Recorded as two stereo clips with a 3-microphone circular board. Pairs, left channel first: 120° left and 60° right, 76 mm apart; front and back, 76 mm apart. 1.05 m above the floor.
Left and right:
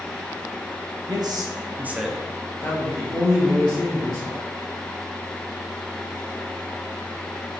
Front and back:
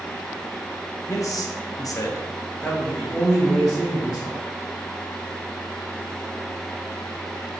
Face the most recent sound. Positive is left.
turn(degrees=95)